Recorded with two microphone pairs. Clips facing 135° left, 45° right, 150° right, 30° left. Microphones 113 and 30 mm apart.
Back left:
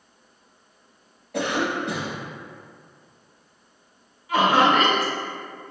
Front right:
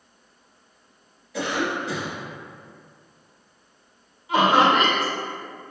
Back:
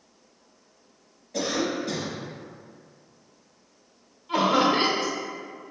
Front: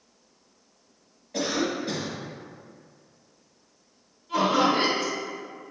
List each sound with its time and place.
1.3 s a cough: 105° left, 1.2 m
4.3 s laughter: 120° right, 0.8 m